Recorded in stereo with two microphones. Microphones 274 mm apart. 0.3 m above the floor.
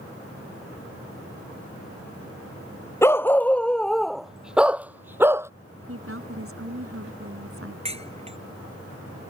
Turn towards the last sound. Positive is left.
turn(degrees=-25)  # may be behind; listen again after turning